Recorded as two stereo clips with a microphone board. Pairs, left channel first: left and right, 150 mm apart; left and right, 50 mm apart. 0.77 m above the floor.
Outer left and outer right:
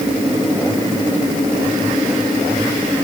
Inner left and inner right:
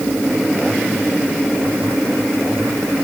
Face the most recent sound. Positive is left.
No sound to turn to.